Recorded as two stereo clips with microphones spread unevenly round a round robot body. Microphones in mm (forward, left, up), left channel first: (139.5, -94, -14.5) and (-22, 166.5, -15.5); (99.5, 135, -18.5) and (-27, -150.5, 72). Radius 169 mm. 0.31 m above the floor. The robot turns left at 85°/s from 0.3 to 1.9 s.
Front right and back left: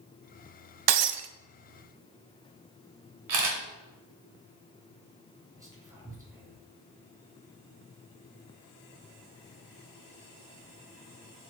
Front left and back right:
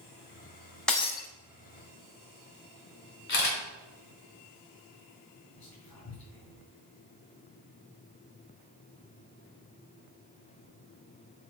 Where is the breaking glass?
150° left, 0.6 m; by 1.3 s 115° left, 0.6 m.